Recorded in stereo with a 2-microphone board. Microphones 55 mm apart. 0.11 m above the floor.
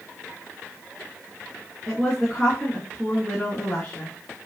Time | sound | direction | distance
1.9 | a woman speaking | 20° left (ahead or behind) | 9.5 m